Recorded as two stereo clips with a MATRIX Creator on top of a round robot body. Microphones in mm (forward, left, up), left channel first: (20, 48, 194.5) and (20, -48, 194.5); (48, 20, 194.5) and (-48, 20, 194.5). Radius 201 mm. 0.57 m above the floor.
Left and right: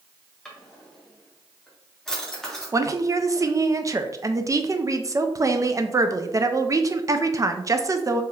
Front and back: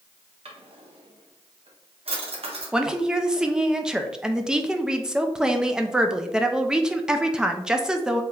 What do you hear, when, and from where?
0.5 s a drawer: 175° left, 1.1 m
2.7 s a woman speaking: 100° right, 0.7 m